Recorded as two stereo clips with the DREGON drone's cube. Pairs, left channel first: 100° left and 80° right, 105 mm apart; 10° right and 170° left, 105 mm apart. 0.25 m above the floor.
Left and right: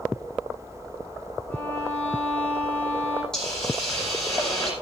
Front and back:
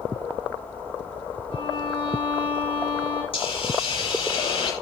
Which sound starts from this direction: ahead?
A hiss, at 3.3 s.